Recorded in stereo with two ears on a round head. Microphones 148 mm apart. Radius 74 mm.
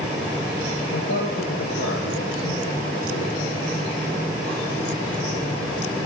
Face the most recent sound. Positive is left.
turn(degrees=70)  # may be behind; listen again after turning